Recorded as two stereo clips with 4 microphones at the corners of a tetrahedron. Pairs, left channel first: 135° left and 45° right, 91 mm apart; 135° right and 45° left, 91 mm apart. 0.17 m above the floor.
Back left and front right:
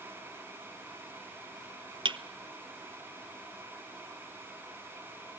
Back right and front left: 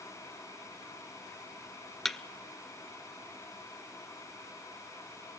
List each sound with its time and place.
2.0 s a thud: 50° right, 0.6 m